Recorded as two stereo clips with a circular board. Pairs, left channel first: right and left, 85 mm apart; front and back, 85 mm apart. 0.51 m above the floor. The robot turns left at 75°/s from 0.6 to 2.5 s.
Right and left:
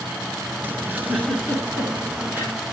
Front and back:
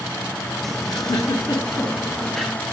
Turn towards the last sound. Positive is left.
turn(degrees=-100)